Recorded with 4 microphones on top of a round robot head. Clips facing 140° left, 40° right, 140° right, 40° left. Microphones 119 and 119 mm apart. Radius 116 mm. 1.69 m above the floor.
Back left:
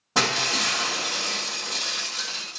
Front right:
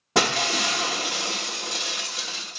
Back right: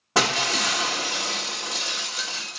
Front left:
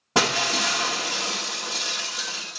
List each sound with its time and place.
0.1 s breaking glass: 25° right, 1.0 m